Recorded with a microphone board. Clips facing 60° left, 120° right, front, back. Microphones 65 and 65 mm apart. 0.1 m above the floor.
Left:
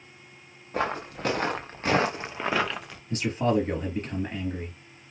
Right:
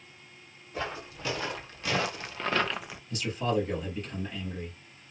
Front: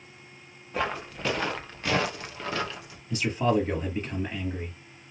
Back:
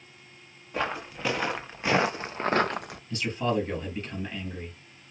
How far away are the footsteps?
About 1.3 m.